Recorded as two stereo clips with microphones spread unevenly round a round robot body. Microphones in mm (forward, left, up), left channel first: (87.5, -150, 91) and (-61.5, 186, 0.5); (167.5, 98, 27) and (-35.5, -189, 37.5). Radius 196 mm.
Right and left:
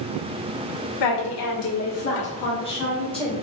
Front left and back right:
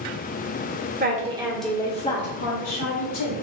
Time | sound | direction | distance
1.0 | a woman speaking | 65° right | 1.4 m